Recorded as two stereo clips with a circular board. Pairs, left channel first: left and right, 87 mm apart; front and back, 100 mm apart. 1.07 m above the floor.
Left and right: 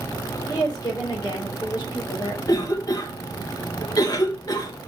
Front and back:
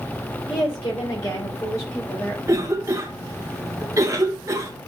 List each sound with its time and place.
0.5 s a woman speaking: 40° left, 4 m; by 2.4 s 65° left, 3.5 m
2.5 s a cough: 125° left, 1.0 m